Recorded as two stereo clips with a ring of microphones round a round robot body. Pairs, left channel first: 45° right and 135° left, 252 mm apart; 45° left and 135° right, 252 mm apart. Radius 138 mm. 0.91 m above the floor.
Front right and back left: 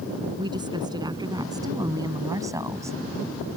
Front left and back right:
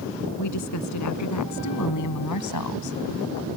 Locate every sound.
0.4 s a woman speaking: 60° left; by 3.5 s 55° left